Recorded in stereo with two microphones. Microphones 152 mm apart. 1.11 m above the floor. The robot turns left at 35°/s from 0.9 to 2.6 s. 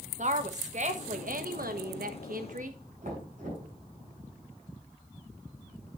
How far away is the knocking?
About 4.5 m.